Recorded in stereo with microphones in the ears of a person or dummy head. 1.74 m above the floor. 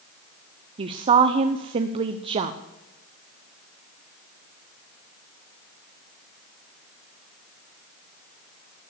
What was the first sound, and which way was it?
A woman speaking, 30° right (ahead or behind).